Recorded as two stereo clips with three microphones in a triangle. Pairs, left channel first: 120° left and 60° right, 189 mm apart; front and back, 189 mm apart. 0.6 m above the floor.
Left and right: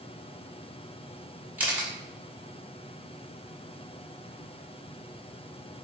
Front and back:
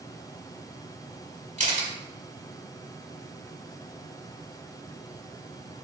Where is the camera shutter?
135° right, 1.0 m.